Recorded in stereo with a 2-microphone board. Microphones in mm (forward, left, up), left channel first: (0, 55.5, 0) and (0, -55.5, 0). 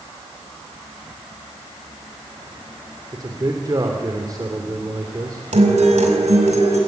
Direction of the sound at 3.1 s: 35° right (ahead or behind).